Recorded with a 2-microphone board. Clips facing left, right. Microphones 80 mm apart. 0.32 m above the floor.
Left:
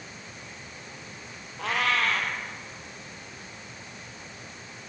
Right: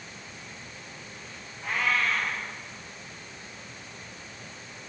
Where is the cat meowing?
80° left, 4.5 m.